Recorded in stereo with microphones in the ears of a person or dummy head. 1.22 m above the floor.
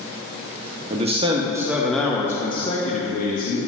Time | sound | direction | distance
0.9 | a man speaking | 35° right (ahead or behind) | 1.0 m